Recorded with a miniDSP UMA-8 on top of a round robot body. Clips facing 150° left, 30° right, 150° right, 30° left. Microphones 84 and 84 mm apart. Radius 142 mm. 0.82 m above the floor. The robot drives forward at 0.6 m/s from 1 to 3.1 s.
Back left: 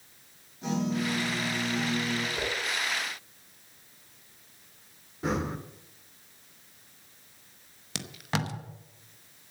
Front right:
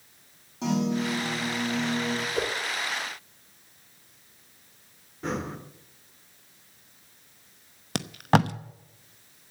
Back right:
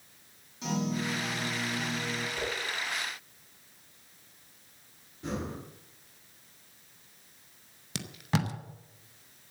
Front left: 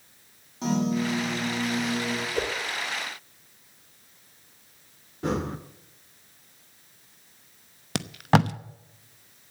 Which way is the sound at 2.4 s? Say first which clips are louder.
Front right 4 dB, front left 8 dB; 10° left.